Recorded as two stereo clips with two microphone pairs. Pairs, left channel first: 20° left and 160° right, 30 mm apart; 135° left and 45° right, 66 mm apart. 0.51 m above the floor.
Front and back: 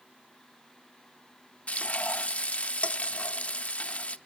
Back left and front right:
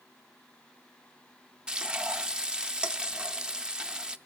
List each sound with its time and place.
1.7 s frying: 35° left, 0.5 m